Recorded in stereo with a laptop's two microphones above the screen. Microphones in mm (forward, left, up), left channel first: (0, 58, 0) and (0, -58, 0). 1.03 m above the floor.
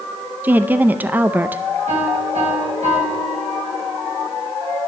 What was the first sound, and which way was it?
A woman speaking, 15° right (ahead or behind).